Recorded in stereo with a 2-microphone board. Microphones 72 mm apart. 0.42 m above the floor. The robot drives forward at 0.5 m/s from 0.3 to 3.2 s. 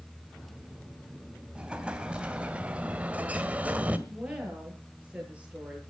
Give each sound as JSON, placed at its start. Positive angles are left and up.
{"t": 1.6, "sound": "an explosion", "side_deg": -15, "distance_m": 2.5}
{"t": 4.1, "sound": "a woman speaking", "side_deg": -15, "distance_m": 9.0}